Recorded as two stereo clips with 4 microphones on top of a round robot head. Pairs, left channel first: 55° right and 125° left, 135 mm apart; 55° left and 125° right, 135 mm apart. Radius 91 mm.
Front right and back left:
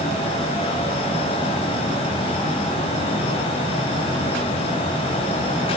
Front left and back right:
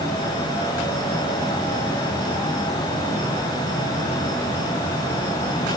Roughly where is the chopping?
I don't hear chopping.